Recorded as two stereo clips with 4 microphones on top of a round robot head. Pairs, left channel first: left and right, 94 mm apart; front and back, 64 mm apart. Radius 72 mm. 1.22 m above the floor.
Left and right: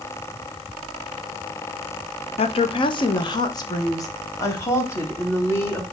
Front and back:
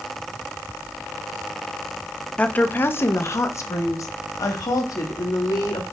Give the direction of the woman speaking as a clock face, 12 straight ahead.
10 o'clock.